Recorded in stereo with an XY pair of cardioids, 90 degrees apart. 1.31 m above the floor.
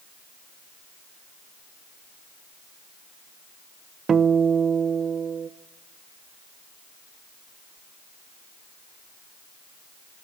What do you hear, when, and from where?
4.1 s a guitar: 55° right, 0.7 m